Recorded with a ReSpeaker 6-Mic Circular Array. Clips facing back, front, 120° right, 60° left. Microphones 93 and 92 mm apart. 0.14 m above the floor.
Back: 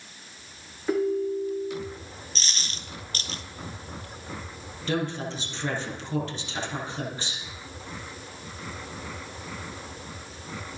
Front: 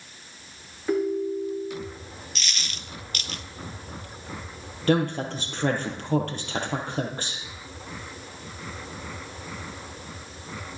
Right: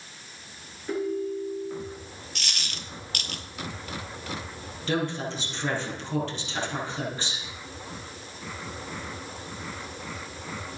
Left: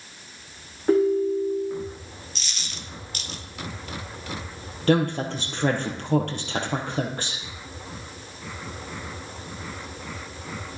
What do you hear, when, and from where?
0.9 s a ringtone: 95° left, 5 m
2.4 s a dropped coin: 125° right, 0.9 m
4.9 s a woman speaking: 35° left, 3.5 m